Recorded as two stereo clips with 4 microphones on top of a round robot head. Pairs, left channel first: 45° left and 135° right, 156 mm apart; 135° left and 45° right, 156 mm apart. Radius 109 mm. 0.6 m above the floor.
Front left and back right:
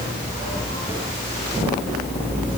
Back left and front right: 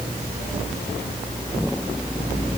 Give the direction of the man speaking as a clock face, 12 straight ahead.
No man speaking in this recording.